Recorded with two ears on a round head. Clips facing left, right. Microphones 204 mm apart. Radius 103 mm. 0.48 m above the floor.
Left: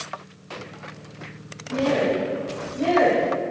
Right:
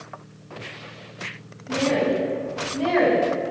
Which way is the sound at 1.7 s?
60° right (ahead or behind).